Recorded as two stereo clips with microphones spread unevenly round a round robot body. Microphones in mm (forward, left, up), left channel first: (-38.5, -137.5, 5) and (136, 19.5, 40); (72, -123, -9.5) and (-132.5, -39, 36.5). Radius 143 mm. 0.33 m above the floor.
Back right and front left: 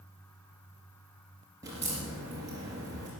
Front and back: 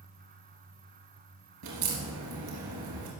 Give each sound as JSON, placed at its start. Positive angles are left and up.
{"t": 1.6, "sound": "a crack", "azimuth_deg": 120, "distance_m": 3.0}